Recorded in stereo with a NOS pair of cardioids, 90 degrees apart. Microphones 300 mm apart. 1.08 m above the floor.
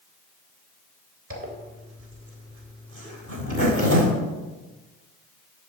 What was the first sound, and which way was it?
A zipper, 45° right.